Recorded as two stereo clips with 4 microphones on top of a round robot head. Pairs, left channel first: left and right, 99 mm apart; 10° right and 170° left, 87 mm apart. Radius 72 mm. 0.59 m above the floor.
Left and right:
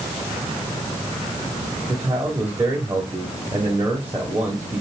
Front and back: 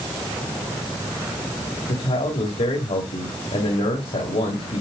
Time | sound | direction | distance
1.9 | a man speaking | 20° right | 2.5 m